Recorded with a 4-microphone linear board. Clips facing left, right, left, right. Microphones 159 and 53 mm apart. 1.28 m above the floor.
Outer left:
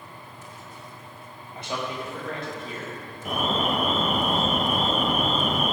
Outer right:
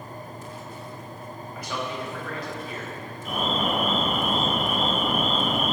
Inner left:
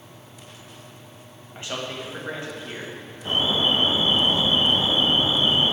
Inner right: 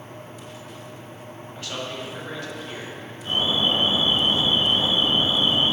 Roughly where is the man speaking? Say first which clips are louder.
Outer left 1 dB, inner left 1 dB; left.